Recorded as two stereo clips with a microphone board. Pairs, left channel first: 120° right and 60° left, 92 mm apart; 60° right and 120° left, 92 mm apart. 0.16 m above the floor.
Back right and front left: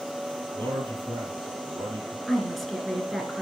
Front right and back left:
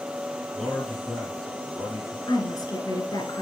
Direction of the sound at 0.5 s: 25° left.